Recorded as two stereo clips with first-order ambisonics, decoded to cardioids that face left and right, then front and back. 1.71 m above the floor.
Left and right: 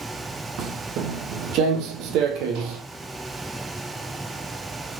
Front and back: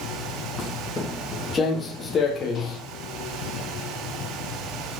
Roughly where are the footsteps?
Right.